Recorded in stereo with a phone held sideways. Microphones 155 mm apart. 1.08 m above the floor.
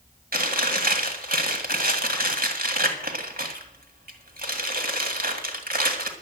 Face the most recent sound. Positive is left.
turn(degrees=-75)  # may be behind; listen again after turning